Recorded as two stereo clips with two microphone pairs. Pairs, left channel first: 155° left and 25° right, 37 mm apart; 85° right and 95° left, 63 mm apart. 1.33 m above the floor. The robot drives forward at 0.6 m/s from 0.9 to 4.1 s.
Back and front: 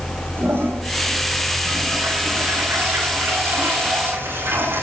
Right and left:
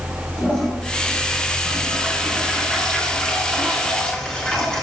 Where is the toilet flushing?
10° right, 7 m.